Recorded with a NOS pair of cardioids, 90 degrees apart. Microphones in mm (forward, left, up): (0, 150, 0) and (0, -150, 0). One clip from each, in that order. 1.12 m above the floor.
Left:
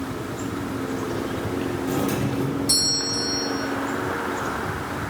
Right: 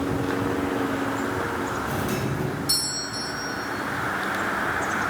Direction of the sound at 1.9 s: 10° left.